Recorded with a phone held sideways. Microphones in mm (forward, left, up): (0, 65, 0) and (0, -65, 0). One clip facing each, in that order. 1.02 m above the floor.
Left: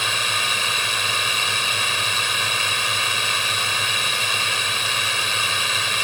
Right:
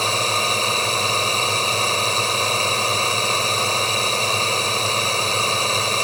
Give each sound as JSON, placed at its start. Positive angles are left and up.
{"t": 0.0, "sound": "a drone", "side_deg": -35}